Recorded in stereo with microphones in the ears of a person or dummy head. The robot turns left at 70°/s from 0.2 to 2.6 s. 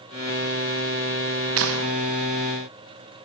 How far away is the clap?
About 1.4 m.